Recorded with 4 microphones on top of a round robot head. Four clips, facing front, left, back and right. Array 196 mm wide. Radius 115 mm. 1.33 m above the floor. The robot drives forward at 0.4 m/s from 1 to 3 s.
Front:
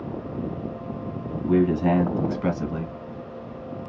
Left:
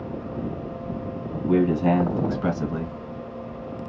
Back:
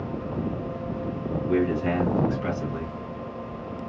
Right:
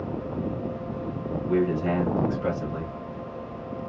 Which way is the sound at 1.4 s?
50° left.